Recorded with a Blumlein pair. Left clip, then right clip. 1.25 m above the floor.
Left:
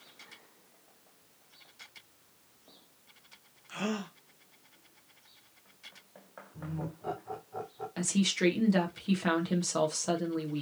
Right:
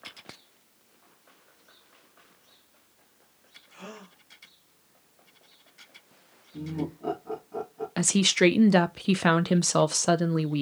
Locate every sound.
3.7 s a gasp: 40° left, 1.1 m
6.5 s laughter: 35° right, 2 m
8.0 s a woman speaking: 60° right, 0.5 m